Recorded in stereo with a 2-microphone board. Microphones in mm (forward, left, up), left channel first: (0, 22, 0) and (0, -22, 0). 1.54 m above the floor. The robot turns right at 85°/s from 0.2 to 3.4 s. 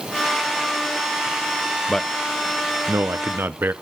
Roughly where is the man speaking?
Centre.